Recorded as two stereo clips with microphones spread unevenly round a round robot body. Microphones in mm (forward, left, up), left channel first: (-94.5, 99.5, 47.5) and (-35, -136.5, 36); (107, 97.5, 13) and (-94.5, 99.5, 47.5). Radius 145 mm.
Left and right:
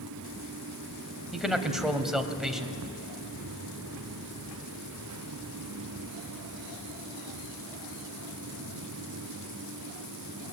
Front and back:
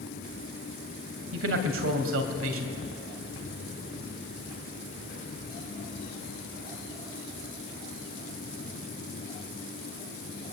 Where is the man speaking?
165° right, 3 m.